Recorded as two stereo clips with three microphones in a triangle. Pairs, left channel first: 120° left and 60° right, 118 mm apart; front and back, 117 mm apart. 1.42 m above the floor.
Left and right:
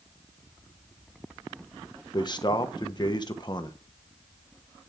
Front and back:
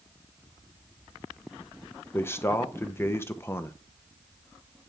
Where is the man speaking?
70° left, 1.0 m.